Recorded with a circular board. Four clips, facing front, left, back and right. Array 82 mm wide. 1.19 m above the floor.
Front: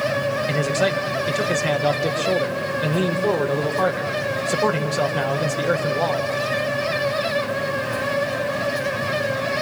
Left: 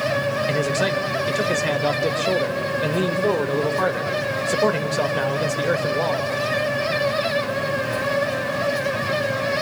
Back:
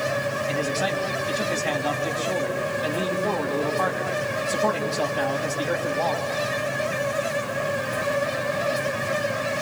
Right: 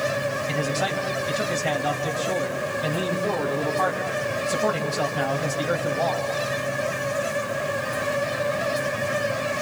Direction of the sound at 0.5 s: 45° left.